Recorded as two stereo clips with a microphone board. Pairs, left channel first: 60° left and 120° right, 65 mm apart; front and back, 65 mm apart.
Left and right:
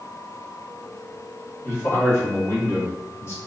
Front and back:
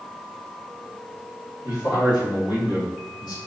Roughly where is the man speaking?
Ahead.